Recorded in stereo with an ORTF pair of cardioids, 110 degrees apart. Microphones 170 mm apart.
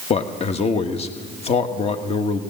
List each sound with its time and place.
0.1 s a man speaking: 35° left, 1.4 m